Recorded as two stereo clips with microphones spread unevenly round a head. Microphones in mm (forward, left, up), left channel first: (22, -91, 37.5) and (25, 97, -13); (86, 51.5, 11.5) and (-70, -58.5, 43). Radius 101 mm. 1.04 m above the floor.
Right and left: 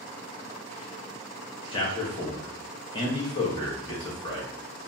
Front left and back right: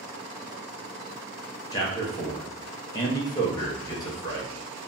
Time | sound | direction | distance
1.7 | a man speaking | 20° right | 1.0 m